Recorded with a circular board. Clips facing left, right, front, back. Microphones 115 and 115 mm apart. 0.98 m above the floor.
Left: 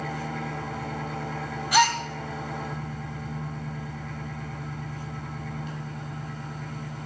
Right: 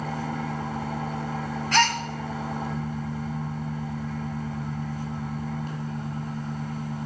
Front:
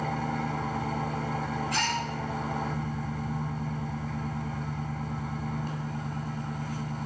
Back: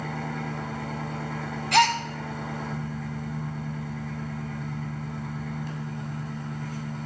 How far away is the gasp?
About 0.5 m.